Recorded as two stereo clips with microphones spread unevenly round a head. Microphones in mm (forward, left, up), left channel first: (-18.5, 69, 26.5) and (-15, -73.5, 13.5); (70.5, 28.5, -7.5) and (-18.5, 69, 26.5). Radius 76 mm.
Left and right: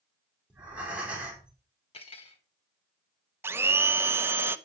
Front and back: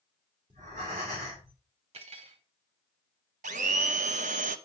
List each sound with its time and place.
0.5 s breathing: 170° right, 3.5 m
1.9 s cutlery clinking: 140° left, 2 m
3.4 s a blender: 160° right, 0.6 m